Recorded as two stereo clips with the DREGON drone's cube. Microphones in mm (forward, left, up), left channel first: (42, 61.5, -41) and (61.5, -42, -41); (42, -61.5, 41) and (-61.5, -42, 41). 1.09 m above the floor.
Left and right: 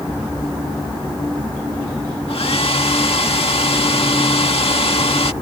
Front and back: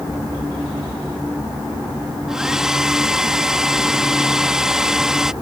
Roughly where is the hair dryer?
Left.